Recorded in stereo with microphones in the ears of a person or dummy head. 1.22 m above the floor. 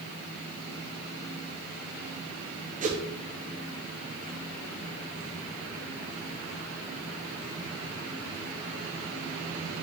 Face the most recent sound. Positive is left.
turn(degrees=-40)  # may be behind; listen again after turning